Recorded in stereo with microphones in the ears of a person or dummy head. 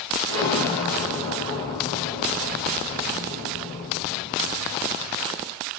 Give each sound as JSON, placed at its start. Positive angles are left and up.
{"t": 0.3, "sound": "an explosion", "side_deg": 25, "distance_m": 1.3}